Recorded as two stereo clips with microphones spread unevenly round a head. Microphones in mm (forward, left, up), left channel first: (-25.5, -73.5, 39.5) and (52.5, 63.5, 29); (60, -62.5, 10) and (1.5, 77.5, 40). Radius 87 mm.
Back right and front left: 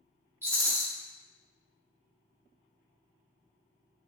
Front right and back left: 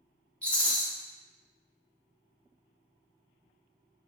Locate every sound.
0.4 s a rattle: straight ahead, 0.9 m